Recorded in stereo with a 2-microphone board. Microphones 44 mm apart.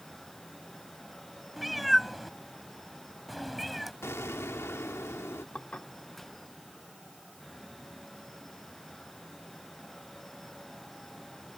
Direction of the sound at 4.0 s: 80° left.